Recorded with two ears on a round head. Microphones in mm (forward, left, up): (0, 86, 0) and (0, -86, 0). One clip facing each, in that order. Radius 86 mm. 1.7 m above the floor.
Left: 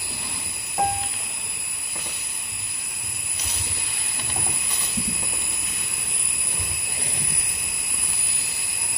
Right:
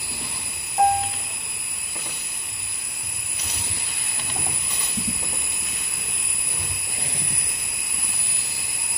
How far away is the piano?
About 0.9 m.